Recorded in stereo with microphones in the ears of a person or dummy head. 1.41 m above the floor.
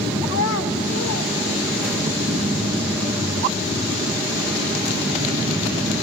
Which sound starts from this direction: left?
A child speaking, at 0.3 s.